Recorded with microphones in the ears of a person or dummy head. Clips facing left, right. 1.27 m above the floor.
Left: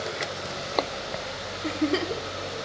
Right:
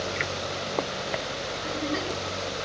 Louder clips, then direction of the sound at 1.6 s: Left 6 dB; 45° left (ahead or behind).